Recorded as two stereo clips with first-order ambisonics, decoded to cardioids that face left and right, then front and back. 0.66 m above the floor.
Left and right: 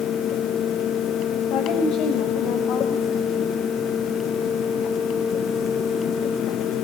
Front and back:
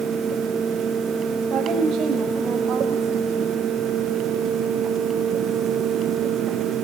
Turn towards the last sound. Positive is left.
turn(degrees=135)